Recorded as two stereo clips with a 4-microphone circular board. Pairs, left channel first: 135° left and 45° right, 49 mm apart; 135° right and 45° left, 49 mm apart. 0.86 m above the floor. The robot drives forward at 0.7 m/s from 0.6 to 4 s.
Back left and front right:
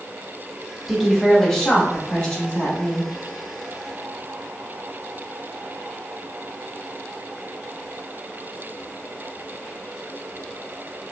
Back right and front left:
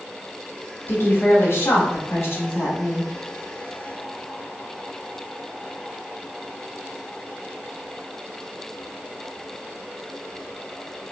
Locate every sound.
0.9 s a woman speaking: 135° right, 1.1 m; by 3.1 s 165° right, 2.5 m